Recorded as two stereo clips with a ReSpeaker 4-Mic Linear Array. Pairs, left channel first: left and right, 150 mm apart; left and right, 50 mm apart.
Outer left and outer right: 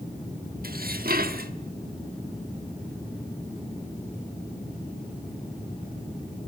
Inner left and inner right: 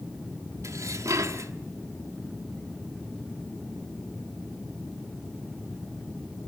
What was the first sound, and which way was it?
Dishes clattering, 80° right.